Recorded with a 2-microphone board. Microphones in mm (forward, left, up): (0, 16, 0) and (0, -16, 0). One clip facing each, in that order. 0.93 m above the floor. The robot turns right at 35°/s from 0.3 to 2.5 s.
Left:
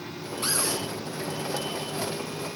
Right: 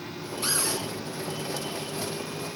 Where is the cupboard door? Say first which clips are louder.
Left 1 dB; 35° left (ahead or behind), 5.5 m; by 0.8 s 20° left (ahead or behind), 5.5 m.